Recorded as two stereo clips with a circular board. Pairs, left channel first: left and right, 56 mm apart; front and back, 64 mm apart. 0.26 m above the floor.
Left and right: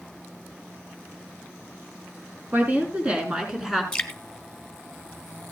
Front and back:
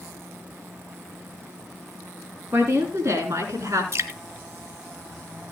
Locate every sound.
2.5 s a woman speaking: 145° right, 4 m; by 3.8 s 175° right, 4 m
3.9 s dripping: 165° left, 2.0 m